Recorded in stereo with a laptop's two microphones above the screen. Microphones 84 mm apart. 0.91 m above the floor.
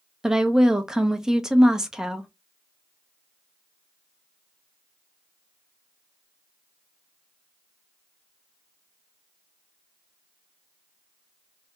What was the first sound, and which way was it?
A woman speaking, 5° right (ahead or behind).